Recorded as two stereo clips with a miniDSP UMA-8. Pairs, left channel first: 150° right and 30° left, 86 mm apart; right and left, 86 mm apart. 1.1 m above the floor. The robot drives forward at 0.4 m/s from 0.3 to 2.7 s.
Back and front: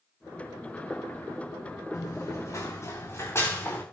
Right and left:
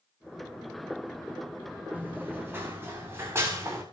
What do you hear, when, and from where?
1.9 s running footsteps: 155° left, 6.5 m; by 3.8 s 145° left, 9 m